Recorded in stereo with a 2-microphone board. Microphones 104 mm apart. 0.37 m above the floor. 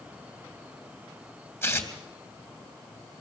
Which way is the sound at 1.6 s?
20° left (ahead or behind).